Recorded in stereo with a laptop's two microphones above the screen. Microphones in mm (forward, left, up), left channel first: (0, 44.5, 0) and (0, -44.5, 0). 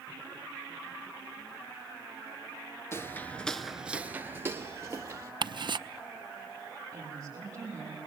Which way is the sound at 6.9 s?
30° right (ahead or behind).